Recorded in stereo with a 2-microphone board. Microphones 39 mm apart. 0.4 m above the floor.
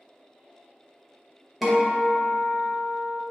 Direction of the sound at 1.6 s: 5° right (ahead or behind).